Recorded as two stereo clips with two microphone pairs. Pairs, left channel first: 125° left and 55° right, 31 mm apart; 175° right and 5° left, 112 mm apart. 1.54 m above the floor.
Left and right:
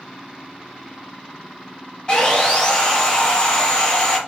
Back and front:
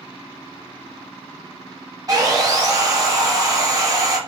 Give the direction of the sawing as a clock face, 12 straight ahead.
10 o'clock.